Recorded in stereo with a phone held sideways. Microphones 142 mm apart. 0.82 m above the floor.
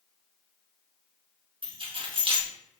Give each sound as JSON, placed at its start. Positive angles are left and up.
{"t": 1.6, "sound": "keys jangling", "side_deg": -35, "distance_m": 0.7}